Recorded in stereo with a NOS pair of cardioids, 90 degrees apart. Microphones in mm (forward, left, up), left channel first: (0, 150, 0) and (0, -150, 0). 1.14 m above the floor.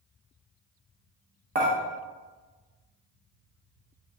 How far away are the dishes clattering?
About 1.1 m.